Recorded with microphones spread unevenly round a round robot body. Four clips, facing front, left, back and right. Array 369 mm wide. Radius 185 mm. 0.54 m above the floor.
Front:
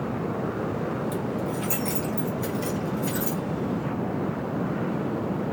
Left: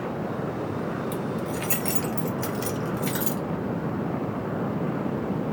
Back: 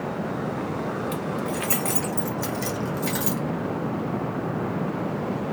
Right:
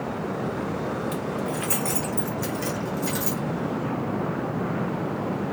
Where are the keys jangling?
175° right, 1.1 m; by 3.4 s 145° left, 1.8 m.